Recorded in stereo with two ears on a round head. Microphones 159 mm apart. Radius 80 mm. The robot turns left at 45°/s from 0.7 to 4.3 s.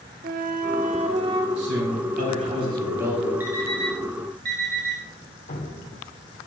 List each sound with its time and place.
0.2 s a flute: 125° right, 0.8 m; by 1.5 s 160° right, 0.8 m
1.6 s a man speaking: 100° right, 4 m; by 3.3 s 175° right, 4 m
3.4 s an alarm clock: 10° right (ahead or behind), 2.5 m; by 5.0 s 50° right (ahead or behind), 2.5 m
5.5 s dripping: 50° left (ahead or behind), 2.5 m